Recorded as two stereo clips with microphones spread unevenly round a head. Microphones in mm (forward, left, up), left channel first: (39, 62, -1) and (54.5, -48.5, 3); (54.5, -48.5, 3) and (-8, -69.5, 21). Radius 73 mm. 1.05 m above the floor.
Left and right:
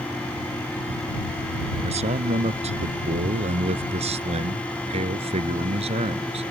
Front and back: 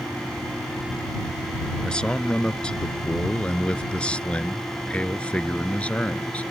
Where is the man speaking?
60° right; by 6.4 s 55° right.